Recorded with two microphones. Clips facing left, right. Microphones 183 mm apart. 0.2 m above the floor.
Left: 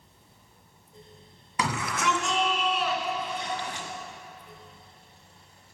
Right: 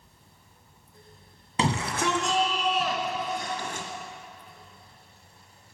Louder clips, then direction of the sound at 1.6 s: Right 3 dB; 25° right (ahead or behind).